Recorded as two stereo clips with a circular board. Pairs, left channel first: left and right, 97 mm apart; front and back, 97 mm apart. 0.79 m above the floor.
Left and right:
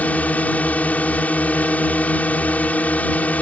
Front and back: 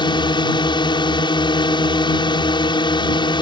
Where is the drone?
20° left.